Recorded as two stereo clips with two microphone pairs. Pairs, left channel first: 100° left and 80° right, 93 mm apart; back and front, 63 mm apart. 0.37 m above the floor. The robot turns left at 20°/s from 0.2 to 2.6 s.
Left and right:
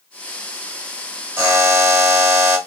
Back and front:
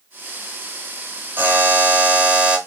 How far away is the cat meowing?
I don't hear a cat meowing.